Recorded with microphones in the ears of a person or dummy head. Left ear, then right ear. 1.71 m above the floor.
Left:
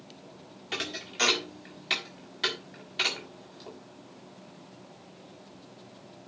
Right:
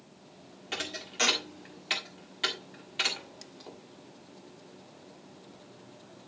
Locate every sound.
0.7 s a thud: 5° left (ahead or behind), 1.6 m